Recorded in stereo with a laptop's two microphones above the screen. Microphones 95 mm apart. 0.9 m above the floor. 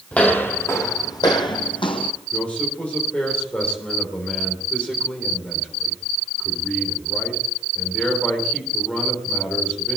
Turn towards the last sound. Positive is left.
turn(degrees=10)  # may be behind; listen again after turning